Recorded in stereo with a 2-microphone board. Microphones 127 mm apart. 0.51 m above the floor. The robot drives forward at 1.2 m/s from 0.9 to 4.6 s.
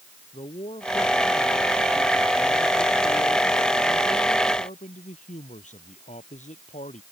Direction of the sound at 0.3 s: 55° left (ahead or behind).